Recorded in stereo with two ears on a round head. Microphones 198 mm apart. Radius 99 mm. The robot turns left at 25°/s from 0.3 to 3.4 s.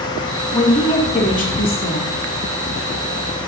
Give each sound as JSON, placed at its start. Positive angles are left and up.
{"t": 0.5, "sound": "a woman speaking", "azimuth_deg": 165, "distance_m": 2.5}